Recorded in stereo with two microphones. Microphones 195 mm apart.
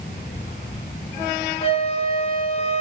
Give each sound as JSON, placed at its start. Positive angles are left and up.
{"t": 1.6, "sound": "a flute", "side_deg": 35, "distance_m": 3.5}